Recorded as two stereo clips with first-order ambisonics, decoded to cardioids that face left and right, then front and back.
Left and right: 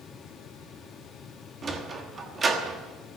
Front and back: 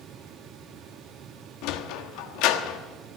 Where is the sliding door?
20° right, 1.2 m.